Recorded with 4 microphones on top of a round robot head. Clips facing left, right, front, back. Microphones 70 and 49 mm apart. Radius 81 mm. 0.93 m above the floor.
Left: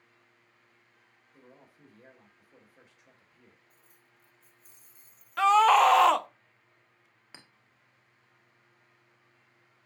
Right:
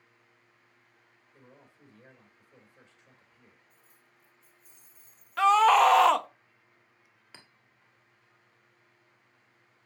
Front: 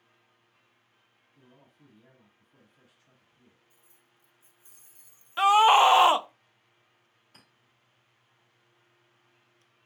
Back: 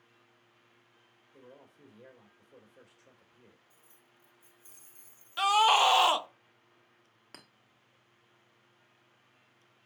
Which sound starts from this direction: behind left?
Keys jangling, at 3.7 s.